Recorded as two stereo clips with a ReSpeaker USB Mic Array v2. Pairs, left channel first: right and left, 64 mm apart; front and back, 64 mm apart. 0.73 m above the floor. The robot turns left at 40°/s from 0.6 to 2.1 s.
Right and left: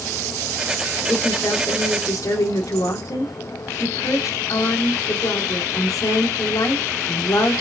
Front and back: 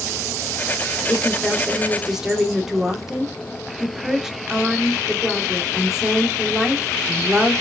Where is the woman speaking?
55° right, 2 m; by 7.6 s 100° right, 2 m.